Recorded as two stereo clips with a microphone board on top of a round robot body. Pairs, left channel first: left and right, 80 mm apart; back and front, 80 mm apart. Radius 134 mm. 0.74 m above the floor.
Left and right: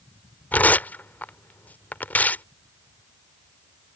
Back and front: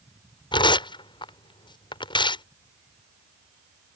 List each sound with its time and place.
0.5 s tearing paper: 160° left